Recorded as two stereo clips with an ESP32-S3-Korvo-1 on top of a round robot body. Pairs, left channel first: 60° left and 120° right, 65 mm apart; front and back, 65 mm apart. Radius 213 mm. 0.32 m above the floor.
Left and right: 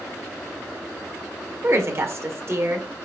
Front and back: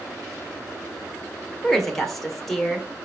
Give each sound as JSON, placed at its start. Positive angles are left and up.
{"t": 1.6, "sound": "a woman speaking", "azimuth_deg": -85, "distance_m": 2.0}